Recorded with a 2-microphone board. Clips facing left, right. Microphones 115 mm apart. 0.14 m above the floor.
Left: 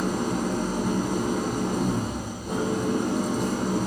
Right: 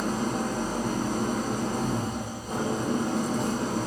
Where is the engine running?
65° left (ahead or behind), 3.5 m.